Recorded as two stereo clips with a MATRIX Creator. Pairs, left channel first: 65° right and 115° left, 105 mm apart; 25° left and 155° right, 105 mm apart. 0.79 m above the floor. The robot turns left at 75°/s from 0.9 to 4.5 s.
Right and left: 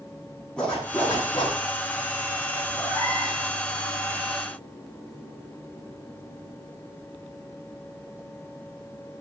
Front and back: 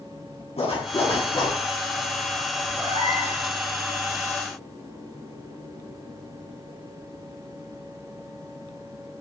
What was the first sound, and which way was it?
A zipper, 15° left.